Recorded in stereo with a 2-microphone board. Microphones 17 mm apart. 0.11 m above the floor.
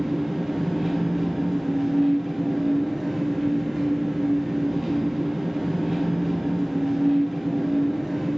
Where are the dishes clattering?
I don't hear dishes clattering.